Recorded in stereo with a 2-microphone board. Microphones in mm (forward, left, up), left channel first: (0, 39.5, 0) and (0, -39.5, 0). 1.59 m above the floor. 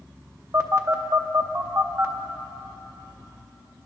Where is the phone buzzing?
35° right (ahead or behind), 0.7 m.